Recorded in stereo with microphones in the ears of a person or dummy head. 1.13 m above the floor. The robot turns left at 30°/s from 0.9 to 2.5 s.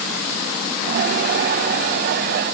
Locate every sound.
Only background noise.